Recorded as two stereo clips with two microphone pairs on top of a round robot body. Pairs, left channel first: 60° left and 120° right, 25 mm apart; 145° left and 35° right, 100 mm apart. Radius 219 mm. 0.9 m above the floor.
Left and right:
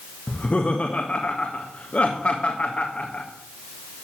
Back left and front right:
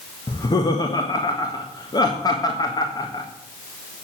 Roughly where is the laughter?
Left.